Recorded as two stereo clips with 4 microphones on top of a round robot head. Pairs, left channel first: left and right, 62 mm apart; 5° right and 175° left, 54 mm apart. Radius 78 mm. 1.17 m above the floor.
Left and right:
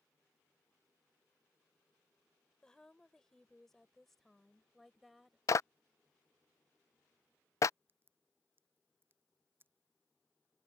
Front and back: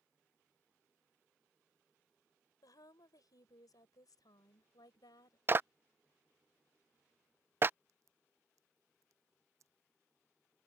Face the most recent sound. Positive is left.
turn(degrees=-145)